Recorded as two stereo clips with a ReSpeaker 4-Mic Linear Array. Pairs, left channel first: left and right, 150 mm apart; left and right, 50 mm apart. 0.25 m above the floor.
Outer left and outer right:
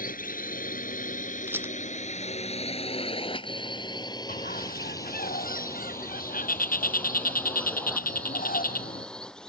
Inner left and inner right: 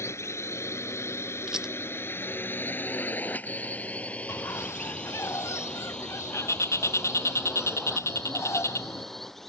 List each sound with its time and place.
0.0 s a drone: 70° left (ahead or behind); by 9.5 s 5° left (ahead or behind)
1.5 s a rattle: 15° right (ahead or behind)
4.3 s a bird: 75° left (ahead or behind)